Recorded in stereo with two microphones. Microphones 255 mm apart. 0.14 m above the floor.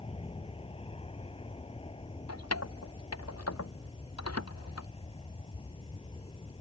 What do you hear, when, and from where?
0.0 s an aircraft: 20° left (ahead or behind)
2.3 s keys jangling: 75° left (ahead or behind)